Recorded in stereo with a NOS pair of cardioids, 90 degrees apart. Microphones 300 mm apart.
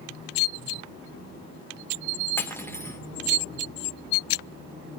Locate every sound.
2.4 s cutlery clinking: 5° left, 1.6 m